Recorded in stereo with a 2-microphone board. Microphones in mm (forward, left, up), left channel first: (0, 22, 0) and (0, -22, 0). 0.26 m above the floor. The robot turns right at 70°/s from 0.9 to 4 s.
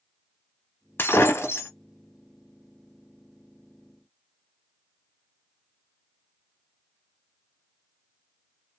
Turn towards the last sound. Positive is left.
turn(degrees=-80)